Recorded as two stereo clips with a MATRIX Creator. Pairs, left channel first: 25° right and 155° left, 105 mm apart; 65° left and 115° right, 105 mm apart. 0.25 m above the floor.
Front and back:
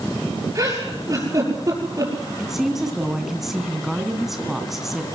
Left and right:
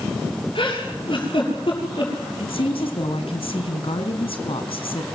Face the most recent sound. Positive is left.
turn(degrees=70)